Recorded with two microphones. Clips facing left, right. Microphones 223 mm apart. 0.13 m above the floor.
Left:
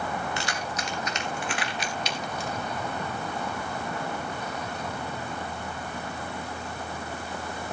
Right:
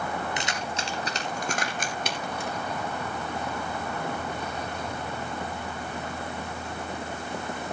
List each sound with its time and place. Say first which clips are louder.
0.4 s keys jangling: even; 20° right (ahead or behind), 2 m; by 2.5 s 60° right (ahead or behind), 2 m